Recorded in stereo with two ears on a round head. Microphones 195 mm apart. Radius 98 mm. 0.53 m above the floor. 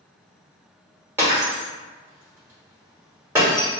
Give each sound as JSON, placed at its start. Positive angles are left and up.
{"t": 1.2, "sound": "breaking glass", "side_deg": -10, "distance_m": 1.2}